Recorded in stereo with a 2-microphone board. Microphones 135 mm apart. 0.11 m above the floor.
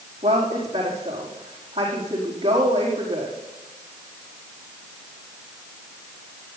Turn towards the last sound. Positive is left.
turn(degrees=-55)  # may be behind; listen again after turning